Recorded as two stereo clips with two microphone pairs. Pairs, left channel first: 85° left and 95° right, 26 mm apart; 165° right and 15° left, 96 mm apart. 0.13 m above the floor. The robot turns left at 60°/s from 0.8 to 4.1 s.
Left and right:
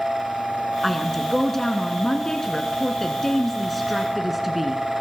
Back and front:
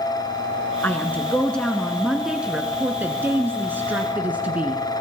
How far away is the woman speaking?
About 1.2 m.